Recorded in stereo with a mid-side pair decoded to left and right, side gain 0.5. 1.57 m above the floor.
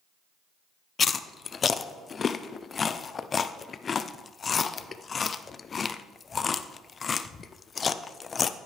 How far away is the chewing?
About 0.6 m.